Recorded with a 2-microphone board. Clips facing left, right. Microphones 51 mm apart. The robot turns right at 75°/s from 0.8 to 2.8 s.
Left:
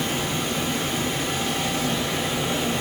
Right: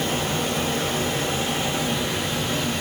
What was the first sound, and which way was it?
Running water, 105° right.